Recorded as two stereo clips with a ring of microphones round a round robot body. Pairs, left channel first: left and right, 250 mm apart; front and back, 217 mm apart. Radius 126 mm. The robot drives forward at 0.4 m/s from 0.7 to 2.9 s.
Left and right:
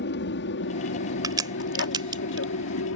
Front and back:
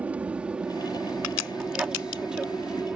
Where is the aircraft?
100° left; by 3.0 s 95° left.